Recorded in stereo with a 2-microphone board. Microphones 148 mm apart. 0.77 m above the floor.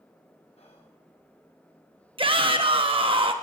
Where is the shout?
35° right (ahead or behind), 1.0 m.